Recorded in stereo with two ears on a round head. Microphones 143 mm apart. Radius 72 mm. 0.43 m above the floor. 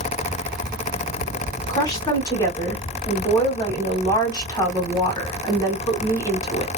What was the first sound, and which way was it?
A woman speaking, 25° left (ahead or behind).